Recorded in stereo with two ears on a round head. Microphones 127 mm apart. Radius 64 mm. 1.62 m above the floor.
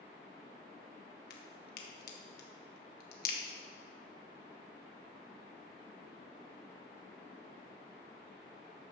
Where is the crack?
70° left (ahead or behind), 1.7 m.